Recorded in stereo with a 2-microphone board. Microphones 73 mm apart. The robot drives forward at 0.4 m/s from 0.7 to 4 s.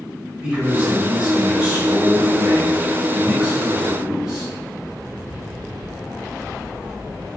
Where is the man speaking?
15° right (ahead or behind), 1.4 m.